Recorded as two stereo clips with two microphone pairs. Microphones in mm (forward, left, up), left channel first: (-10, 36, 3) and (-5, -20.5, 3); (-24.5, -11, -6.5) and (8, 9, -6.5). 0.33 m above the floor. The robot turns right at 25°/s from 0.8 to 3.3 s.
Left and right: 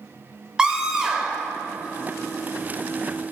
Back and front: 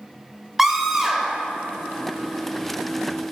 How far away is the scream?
About 0.8 m.